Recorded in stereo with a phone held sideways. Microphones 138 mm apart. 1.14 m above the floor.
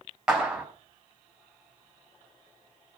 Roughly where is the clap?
Centre.